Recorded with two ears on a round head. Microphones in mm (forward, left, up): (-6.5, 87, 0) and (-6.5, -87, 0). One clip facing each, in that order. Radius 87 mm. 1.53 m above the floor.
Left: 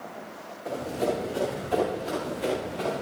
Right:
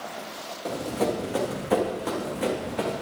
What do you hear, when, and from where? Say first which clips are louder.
0.7 s running footsteps: right 1 dB; 75° right (ahead or behind), 7.5 m; by 2.9 s 70° right (ahead or behind), 8 m